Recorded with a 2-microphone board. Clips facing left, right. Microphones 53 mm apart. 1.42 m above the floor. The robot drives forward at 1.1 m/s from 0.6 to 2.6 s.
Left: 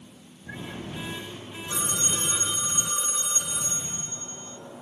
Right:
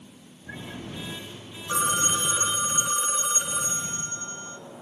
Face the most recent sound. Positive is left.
turn(degrees=-30)  # may be behind; listen again after turning